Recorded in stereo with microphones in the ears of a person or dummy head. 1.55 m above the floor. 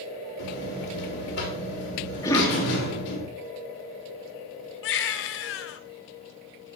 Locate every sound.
0.4 s a buzzer: 70° left (ahead or behind), 4.5 m
2.2 s a cough: 20° left (ahead or behind), 3.5 m
4.8 s a baby crying: 70° left (ahead or behind), 1.0 m